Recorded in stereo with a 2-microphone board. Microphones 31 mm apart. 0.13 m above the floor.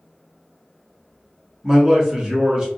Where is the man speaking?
20° right (ahead or behind), 1.1 m.